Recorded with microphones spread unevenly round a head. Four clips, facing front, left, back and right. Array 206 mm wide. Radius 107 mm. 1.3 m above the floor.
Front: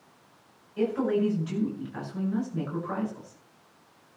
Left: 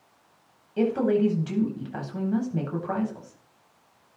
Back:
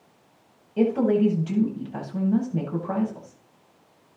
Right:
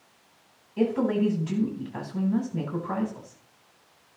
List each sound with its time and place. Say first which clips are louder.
0.8 s a woman speaking: left 2 dB, back 5 dB; 145° left, 9 m